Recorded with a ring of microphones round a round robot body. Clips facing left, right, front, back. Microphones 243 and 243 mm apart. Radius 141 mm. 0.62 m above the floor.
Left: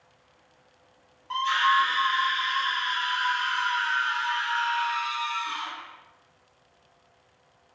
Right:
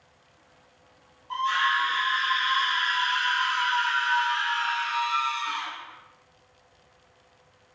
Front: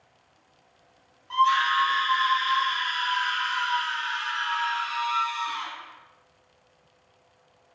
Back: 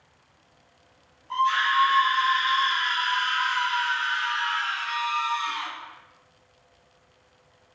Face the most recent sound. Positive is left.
turn(degrees=-125)